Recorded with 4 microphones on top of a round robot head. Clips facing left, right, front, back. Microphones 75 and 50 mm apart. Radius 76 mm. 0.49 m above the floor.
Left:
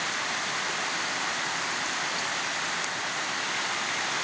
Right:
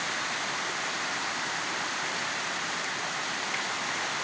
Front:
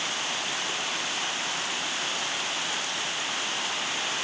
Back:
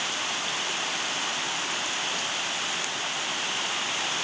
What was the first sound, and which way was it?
Only background noise.